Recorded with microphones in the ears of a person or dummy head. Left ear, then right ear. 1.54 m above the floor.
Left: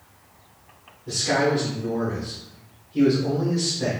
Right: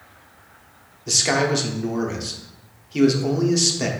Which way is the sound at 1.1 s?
80° right.